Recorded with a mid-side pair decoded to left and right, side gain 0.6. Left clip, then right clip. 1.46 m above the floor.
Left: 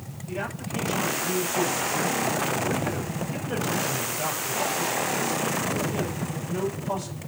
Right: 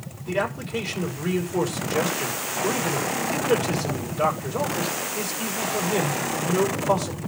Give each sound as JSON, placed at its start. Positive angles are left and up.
{"t": 0.3, "sound": "a man speaking", "azimuth_deg": -65, "distance_m": 6.0}